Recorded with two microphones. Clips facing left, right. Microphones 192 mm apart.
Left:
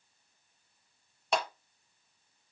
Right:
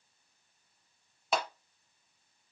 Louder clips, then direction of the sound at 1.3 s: Left 1 dB; centre (ahead or behind).